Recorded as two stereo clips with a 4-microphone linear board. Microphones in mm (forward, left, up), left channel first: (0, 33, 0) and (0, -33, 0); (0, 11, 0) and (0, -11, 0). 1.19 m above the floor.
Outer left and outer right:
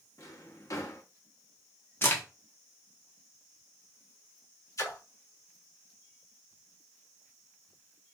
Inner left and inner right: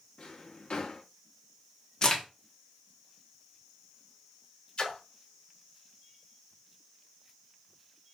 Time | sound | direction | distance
0.2 | a drawer | 50° left (ahead or behind) | 0.7 m
2.0 | a crack | 35° left (ahead or behind) | 1.3 m
4.8 | a splash | 50° left (ahead or behind) | 1.1 m